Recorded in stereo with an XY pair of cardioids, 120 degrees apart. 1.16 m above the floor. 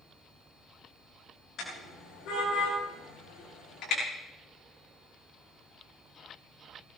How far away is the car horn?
About 8.5 m.